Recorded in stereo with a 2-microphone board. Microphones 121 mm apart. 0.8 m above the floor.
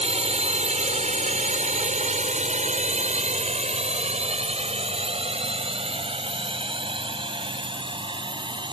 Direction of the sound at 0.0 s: 55° right (ahead or behind).